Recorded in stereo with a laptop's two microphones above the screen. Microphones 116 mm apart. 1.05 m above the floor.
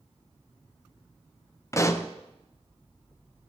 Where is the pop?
25° left (ahead or behind), 0.7 m.